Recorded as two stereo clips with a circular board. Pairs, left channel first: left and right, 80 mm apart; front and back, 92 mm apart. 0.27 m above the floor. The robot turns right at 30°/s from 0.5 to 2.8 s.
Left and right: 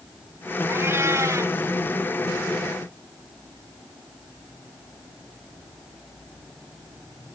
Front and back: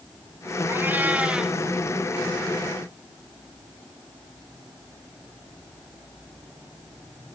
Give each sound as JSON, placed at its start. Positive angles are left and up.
{"t": 0.7, "sound": "a cat meowing", "azimuth_deg": -130, "distance_m": 0.7}